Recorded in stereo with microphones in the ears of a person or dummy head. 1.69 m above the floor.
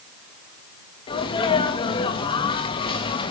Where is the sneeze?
25° left (ahead or behind), 3 m.